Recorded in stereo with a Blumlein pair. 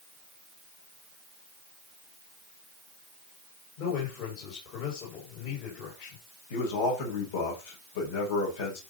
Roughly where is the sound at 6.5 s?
Ahead left.